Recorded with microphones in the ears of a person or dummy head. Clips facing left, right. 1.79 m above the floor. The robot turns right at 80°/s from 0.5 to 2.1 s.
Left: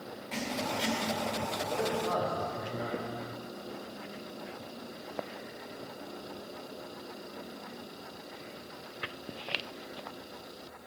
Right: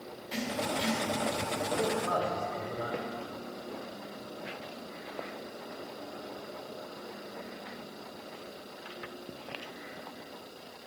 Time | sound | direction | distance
0.3 | writing | 25° right | 1.9 m
1.7 | a man speaking | 170° right | 3 m